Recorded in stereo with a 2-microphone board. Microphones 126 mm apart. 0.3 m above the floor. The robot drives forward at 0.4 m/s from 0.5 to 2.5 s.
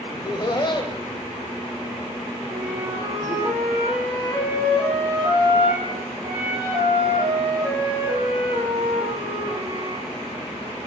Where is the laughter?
35° left (ahead or behind), 1.1 m; by 3.5 s 30° left (ahead or behind), 1.3 m.